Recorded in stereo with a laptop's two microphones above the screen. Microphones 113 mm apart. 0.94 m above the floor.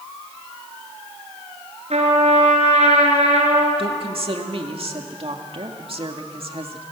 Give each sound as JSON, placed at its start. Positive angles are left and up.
{"t": 1.9, "sound": "a trumpet", "side_deg": -70, "distance_m": 4.0}
{"t": 3.8, "sound": "a woman speaking", "side_deg": -55, "distance_m": 2.0}